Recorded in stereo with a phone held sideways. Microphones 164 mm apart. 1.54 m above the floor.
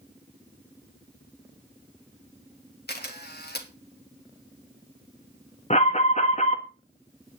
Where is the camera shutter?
75° left (ahead or behind), 1.9 m.